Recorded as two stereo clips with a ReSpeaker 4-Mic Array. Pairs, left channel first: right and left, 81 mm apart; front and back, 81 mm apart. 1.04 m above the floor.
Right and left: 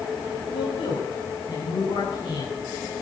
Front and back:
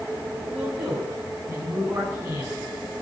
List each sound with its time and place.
0.5 s a man speaking: 100° right, 6 m; by 2.6 s 120° right, 8 m